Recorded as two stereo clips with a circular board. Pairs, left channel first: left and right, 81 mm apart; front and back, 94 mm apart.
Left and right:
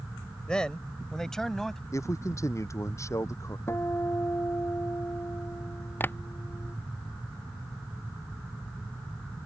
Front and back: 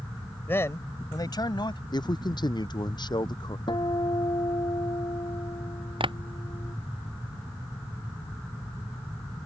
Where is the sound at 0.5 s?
25° left; by 1.8 s 5° left.